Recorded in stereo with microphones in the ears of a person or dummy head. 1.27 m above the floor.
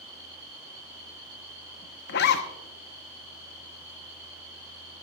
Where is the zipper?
60° left (ahead or behind), 0.8 m.